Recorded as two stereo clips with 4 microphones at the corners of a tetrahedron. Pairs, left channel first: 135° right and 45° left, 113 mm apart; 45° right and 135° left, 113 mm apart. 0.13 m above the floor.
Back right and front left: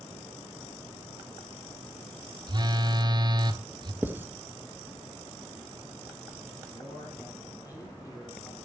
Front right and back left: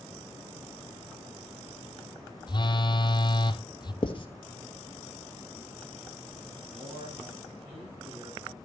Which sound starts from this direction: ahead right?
Writing, at 4.0 s.